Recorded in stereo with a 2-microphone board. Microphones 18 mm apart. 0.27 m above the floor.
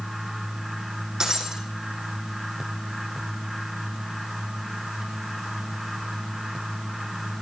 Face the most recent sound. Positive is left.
turn(degrees=-40)  # may be behind; listen again after turning